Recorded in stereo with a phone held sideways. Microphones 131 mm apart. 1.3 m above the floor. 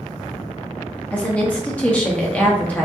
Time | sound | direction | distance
1.1 | a woman speaking | 10° left (ahead or behind) | 0.5 m